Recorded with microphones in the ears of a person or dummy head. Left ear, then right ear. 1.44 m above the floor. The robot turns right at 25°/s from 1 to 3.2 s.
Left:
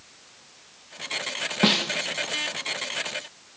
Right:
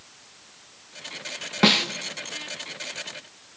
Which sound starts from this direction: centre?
A snare drum, at 1.6 s.